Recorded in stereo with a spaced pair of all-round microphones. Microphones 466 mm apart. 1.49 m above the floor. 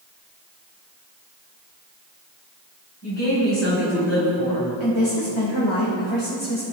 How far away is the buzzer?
No buzzer in this recording.